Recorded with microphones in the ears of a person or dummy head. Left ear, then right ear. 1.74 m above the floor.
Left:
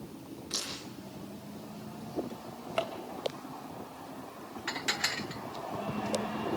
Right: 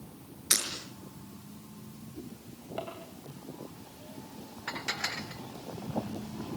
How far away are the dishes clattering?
About 1.3 m.